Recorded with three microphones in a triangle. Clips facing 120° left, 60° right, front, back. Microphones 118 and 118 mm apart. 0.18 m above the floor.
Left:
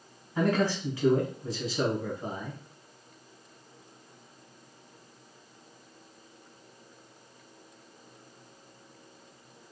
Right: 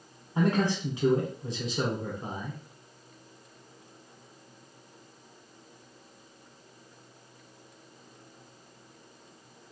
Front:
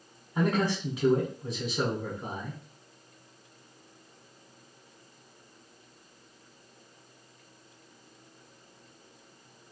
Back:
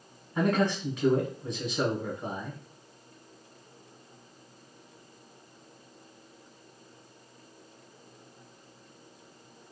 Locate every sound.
0.3 s a man speaking: 75° right, 1.2 m